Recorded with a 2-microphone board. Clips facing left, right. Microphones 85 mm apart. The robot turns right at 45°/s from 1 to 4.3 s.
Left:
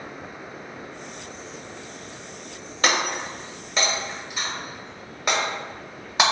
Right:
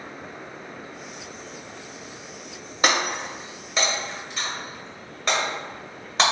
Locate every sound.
2.8 s breaking glass: 15° right (ahead or behind), 0.9 m; by 6.2 s 10° left (ahead or behind), 0.9 m